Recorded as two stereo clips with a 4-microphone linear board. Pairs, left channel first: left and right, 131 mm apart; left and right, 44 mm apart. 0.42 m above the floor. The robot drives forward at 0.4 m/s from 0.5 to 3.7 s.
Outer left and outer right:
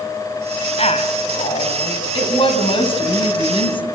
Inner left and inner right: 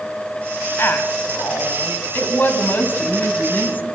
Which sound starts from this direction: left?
A woman speaking, at 0.8 s.